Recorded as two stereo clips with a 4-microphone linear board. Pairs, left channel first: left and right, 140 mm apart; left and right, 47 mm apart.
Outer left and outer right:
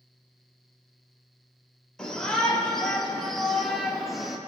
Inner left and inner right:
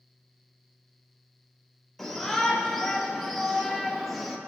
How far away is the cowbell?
I don't hear a cowbell.